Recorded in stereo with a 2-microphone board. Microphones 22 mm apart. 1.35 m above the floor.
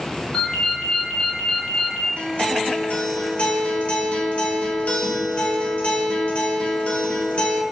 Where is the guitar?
80° left, 0.8 m.